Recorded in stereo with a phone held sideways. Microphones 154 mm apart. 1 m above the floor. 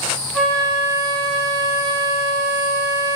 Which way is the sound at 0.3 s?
5° left (ahead or behind).